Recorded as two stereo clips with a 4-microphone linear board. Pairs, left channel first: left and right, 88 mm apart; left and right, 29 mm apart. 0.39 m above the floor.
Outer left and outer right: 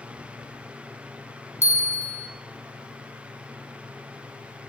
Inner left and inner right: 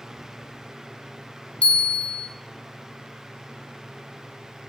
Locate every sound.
1.6 s a bell: 35° left (ahead or behind), 1.6 m